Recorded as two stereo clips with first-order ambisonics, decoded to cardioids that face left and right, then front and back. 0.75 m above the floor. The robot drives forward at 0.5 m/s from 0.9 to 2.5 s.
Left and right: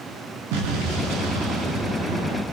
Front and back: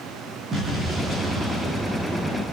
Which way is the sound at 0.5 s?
105° right.